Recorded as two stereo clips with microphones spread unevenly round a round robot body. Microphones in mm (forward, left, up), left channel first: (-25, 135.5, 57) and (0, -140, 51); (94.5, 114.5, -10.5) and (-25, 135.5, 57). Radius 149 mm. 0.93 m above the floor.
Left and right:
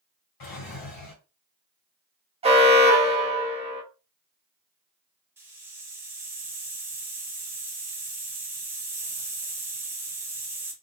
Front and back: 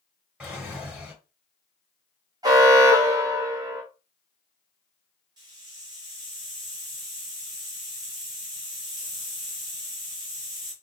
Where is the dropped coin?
No dropped coin in this recording.